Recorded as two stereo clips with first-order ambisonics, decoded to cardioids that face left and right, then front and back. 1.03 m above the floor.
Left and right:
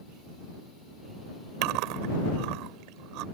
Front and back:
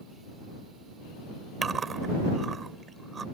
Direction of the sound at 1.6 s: 110° right.